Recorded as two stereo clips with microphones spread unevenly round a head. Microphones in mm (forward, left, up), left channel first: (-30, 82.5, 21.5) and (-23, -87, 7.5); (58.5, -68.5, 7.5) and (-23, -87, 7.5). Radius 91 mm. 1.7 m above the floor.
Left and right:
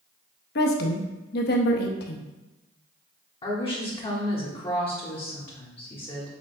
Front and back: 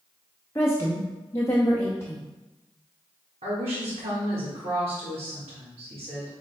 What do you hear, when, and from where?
0.6 s a woman speaking: 85° left, 0.6 m
3.4 s a woman speaking: 150° left, 1.2 m